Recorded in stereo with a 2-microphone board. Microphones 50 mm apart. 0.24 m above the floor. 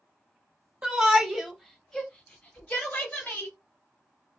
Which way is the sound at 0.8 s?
20° right (ahead or behind).